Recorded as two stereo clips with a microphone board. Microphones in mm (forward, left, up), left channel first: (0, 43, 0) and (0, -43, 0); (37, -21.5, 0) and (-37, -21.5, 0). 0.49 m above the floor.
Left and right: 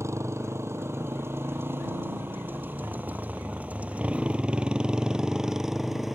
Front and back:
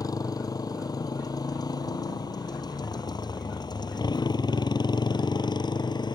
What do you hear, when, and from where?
0.0 s a motorcycle: 35° right; by 6.2 s straight ahead